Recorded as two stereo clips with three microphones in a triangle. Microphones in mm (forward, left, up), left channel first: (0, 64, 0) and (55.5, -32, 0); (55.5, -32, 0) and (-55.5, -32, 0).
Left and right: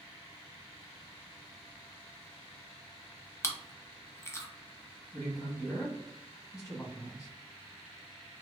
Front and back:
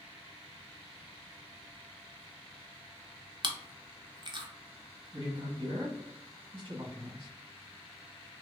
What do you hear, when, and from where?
3.4 s chewing: 175° left, 0.5 m
5.1 s a man speaking: 170° left, 1.5 m